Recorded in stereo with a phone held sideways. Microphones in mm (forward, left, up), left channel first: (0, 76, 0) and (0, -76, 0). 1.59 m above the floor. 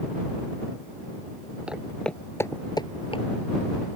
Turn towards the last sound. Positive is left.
turn(degrees=40)  # may be behind; listen again after turning